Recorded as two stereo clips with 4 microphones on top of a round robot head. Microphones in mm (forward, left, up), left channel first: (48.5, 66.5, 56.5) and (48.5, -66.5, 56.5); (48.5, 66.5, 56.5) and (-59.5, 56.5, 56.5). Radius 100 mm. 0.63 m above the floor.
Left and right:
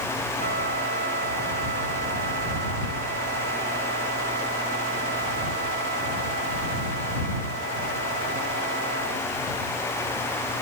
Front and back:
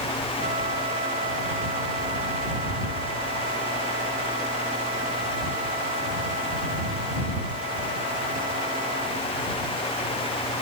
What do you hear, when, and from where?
0.4 s a flute: 120° right